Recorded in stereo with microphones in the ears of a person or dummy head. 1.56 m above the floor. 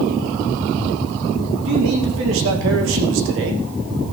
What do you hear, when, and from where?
1.6 s a man speaking: 70° right (ahead or behind), 3 m